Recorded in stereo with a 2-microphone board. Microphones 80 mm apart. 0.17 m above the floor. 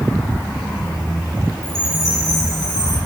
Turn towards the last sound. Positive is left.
turn(degrees=45)  # may be behind; listen again after turning